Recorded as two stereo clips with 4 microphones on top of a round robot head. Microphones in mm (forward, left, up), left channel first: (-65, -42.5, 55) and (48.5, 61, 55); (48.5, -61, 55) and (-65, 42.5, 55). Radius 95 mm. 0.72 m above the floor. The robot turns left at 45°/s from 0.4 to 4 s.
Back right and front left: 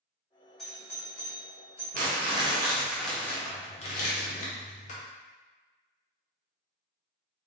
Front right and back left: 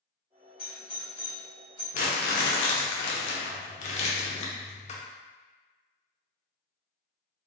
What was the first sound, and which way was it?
A doorbell, 50° right.